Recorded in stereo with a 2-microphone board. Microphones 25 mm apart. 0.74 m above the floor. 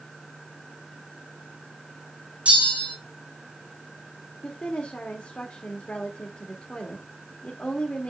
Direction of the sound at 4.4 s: 55° left (ahead or behind).